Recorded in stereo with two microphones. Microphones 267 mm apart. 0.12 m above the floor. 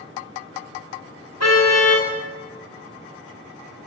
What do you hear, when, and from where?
1.4 s a car horn: 80° left, 6 m